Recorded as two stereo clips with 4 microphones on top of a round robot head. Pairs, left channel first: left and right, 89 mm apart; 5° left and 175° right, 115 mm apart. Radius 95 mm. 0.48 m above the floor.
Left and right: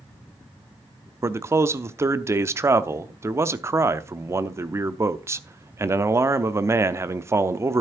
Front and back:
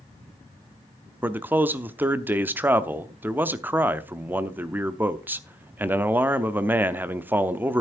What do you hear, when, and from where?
1.2 s a man speaking: 115° right, 0.8 m